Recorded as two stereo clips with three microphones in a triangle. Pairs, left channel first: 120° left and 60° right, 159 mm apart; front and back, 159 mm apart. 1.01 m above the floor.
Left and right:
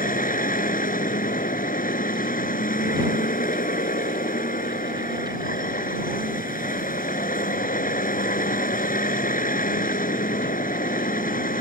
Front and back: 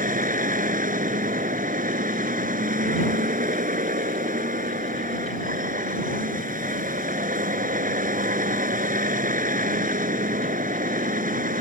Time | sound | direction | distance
0.0 | a vehicle | 150° left | ?